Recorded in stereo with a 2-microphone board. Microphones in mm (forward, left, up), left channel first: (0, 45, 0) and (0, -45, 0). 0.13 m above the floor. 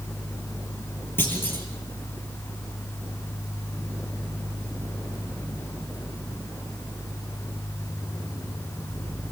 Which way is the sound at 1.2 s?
25° left (ahead or behind).